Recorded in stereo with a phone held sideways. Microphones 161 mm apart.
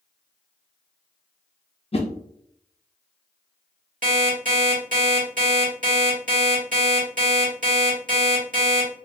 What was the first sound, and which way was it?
A whoosh, 40° left (ahead or behind).